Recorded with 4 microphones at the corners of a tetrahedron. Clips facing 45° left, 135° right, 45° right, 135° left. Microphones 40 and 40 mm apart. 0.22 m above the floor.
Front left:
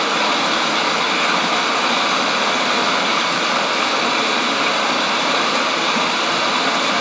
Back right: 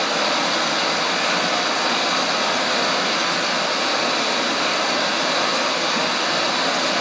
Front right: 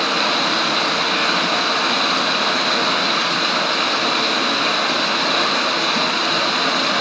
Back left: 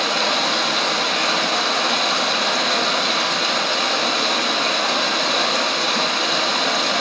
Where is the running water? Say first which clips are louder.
Front left 3 dB, front right 1 dB; 20° left, 0.9 m.